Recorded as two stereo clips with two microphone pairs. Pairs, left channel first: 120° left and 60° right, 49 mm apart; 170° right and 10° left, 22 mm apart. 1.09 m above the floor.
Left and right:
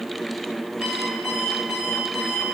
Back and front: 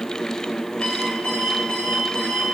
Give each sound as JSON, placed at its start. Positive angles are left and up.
{"t": 0.8, "sound": "an alarm clock", "azimuth_deg": -120, "distance_m": 6.5}